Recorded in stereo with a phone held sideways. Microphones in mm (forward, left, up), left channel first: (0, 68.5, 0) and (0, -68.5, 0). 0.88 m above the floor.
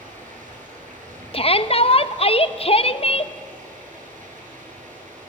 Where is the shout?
45° left (ahead or behind), 0.8 m.